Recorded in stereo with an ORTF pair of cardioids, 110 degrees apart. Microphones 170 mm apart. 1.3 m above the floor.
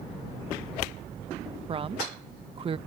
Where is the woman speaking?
35° right.